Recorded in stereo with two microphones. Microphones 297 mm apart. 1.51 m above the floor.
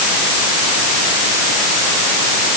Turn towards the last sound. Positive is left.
No sound to turn to.